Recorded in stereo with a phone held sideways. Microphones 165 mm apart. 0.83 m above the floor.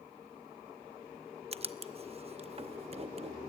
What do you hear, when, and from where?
1.5 s writing: 40° right (ahead or behind), 0.7 m